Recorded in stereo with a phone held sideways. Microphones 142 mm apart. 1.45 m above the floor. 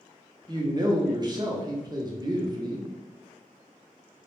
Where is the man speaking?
30° right (ahead or behind), 0.5 m.